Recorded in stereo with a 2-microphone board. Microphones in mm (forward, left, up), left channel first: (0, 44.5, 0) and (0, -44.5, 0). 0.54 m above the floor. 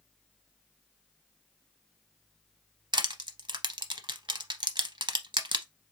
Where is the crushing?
60° right (ahead or behind), 0.6 m.